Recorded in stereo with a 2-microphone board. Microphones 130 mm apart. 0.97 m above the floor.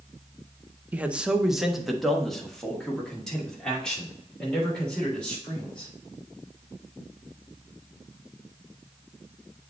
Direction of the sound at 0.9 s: 15° right (ahead or behind).